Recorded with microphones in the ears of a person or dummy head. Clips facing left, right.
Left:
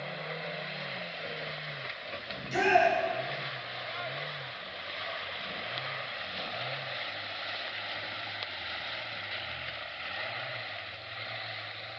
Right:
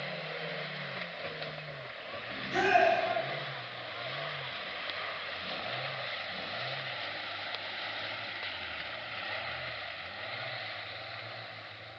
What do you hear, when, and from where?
2.3 s a shout: 35° left (ahead or behind), 2 m